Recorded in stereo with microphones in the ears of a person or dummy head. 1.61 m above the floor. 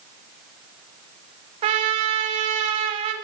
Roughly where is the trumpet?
Right.